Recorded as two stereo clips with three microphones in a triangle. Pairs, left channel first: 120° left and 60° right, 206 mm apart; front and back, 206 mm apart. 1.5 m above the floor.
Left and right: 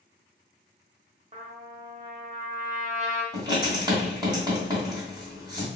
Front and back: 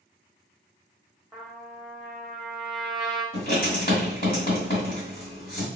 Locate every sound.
1.3 s a trumpet: 95° right, 0.8 m
3.3 s writing: straight ahead, 1.8 m